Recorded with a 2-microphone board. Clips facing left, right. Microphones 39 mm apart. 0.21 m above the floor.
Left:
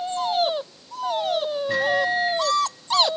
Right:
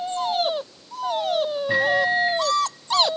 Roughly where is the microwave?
Centre.